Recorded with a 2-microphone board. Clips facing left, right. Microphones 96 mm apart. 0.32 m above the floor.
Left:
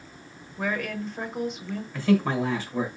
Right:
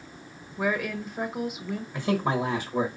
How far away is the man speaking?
About 1.2 m.